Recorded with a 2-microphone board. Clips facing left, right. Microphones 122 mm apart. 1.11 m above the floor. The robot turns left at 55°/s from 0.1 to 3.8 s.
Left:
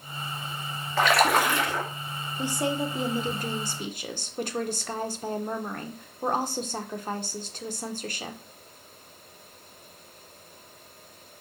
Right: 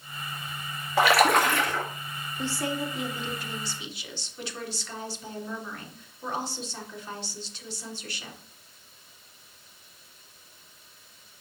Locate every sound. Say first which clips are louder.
1.0 s a splash: right 1 dB; 165° right, 1.8 m; by 1.8 s 145° left, 1.8 m
2.4 s a woman speaking: left 3 dB; 165° left, 0.9 m; by 8.4 s 85° left, 0.9 m